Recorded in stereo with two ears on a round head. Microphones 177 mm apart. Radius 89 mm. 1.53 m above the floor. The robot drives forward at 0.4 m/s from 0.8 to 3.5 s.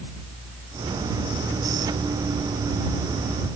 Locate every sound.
Only background noise.